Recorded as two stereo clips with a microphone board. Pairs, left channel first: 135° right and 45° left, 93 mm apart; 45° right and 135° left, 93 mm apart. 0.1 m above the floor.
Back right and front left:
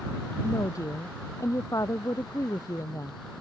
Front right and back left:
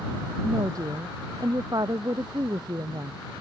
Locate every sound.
0.4 s a woman speaking: 175° left